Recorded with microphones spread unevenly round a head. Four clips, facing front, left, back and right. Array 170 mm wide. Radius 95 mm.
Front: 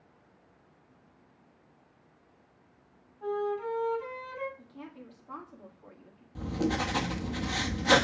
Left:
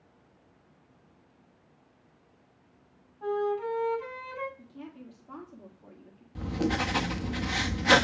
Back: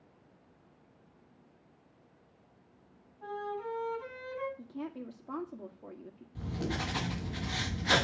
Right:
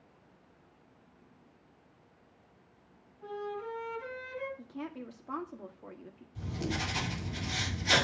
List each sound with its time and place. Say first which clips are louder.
3.2 s a flute: left 10 dB, front 6 dB; 65° left, 6 m
4.6 s a woman speaking: right 4 dB, back 6 dB; 165° right, 1.7 m
6.3 s writing: left 7 dB, front 6 dB; 60° left, 1.5 m